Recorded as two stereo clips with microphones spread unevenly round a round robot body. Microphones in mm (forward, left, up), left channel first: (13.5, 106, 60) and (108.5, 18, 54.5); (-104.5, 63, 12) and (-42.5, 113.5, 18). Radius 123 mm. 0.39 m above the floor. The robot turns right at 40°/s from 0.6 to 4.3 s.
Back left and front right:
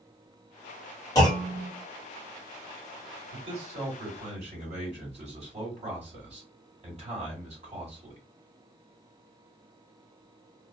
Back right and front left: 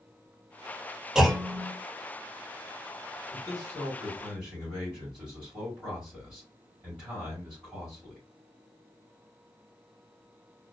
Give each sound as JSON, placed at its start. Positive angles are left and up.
{"t": 1.1, "sound": "a clunk", "azimuth_deg": 120, "distance_m": 1.4}
{"t": 3.3, "sound": "a man speaking", "azimuth_deg": -85, "distance_m": 2.5}